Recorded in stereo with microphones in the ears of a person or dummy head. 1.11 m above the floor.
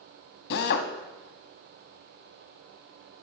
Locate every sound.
0.5 s a drill: 60° left (ahead or behind), 0.8 m